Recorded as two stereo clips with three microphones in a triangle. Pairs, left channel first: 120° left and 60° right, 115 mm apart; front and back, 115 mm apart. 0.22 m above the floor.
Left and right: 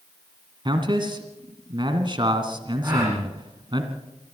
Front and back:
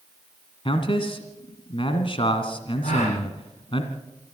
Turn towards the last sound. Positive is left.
turn(degrees=0)